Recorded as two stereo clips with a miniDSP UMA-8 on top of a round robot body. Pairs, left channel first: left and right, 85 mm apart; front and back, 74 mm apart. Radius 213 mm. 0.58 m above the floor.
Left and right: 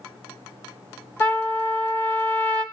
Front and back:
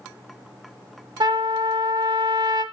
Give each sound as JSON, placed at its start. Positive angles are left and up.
{"t": 1.2, "sound": "a trumpet", "azimuth_deg": 160, "distance_m": 1.5}